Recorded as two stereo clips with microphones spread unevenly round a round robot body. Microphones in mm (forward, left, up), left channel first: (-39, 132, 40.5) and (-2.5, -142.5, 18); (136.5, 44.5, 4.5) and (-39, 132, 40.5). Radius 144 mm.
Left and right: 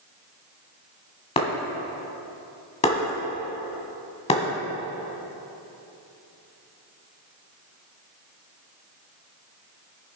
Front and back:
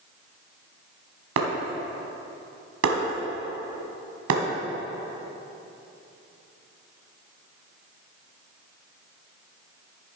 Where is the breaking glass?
165° left, 2.0 m.